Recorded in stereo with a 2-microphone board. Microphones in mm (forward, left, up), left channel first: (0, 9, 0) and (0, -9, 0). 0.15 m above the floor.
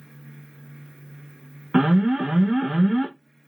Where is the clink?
No clink in this recording.